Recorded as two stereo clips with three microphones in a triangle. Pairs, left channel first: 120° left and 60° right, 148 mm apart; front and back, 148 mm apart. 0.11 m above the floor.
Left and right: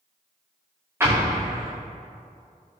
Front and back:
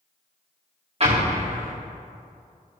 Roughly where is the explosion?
Behind right.